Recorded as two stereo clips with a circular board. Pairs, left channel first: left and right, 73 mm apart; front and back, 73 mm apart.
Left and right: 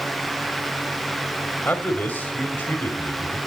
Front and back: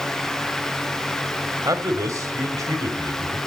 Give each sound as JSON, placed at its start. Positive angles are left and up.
{"t": 1.6, "sound": "a man speaking", "azimuth_deg": 155, "distance_m": 2.5}